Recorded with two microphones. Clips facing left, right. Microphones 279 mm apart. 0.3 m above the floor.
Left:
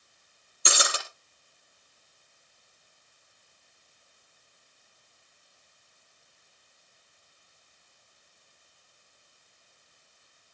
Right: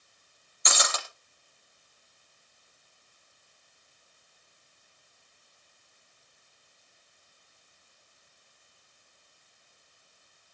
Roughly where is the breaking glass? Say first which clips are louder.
Left 2 dB; left.